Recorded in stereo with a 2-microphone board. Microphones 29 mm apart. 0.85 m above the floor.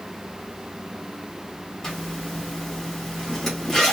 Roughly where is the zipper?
Centre.